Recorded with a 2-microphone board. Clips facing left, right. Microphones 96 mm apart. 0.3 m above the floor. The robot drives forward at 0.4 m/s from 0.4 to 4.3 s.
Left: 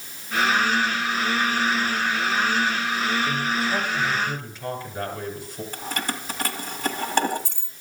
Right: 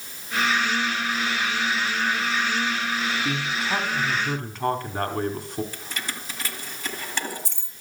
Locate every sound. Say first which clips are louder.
3.2 s a man speaking: left 2 dB; 65° right (ahead or behind), 2.5 m; by 5.6 s 60° right (ahead or behind), 2.5 m
5.7 s keys jangling: left 5 dB; 50° left (ahead or behind), 1.4 m